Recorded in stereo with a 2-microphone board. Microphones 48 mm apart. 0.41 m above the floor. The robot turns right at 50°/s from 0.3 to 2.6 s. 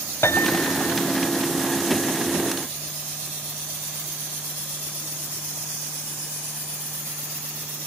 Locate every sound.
0.2 s a piano: 70° left; by 1.0 s 105° left